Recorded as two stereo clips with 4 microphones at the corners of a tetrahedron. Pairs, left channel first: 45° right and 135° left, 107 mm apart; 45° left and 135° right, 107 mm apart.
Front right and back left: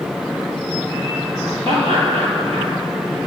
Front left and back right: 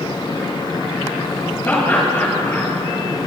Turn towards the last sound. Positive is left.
turn(degrees=115)